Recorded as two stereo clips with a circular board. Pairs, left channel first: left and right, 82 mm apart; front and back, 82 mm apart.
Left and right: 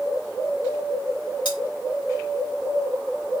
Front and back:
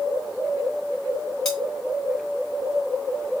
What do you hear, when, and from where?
1.4 s cutlery clinking: 85° left, 2.5 m